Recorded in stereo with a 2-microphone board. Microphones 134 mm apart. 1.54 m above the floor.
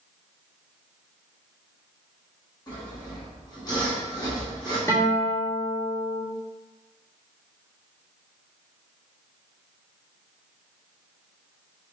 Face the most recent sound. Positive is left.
turn(degrees=20)  # may be behind; listen again after turning